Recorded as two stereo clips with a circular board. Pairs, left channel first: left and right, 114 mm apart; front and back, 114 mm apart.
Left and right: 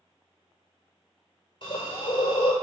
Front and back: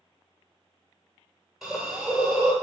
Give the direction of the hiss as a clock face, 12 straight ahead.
9 o'clock.